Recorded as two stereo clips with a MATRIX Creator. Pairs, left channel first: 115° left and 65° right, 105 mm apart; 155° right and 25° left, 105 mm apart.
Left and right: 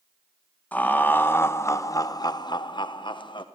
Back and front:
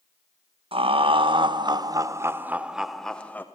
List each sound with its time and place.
0.7 s laughter: 40° left, 1.3 m; by 3.5 s 135° left, 0.9 m